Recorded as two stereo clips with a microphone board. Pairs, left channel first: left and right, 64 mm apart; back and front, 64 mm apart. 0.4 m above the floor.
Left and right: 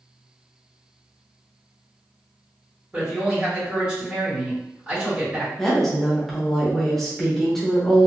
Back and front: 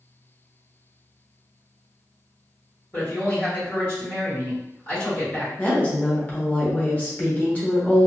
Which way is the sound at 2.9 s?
145° right.